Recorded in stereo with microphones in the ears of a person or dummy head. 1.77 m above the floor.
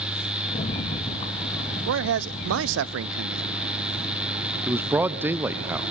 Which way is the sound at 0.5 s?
35° left (ahead or behind).